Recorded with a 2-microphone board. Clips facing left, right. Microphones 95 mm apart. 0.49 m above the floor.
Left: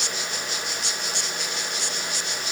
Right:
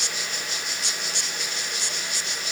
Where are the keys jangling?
No keys jangling in this recording.